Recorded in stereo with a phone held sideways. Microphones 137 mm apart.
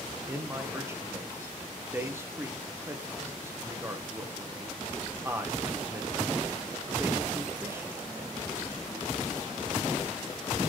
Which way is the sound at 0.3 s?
15° right (ahead or behind).